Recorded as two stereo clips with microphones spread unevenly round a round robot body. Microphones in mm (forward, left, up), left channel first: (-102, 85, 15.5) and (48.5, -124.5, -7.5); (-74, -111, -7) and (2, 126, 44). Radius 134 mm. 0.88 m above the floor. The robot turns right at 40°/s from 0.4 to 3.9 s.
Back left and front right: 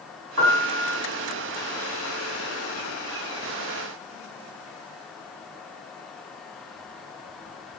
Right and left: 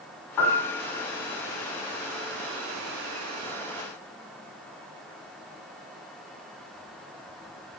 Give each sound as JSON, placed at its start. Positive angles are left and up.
{"t": 0.4, "sound": "a piano", "azimuth_deg": -100, "distance_m": 0.8}